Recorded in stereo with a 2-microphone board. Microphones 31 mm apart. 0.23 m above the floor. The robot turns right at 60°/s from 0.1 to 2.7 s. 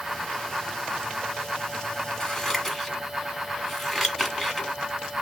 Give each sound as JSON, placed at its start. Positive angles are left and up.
{"t": 2.2, "sound": "scissors", "side_deg": 20, "distance_m": 1.0}